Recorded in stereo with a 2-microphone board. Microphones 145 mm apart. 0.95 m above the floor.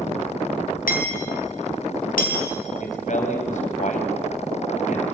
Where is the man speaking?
60° left (ahead or behind), 5 m.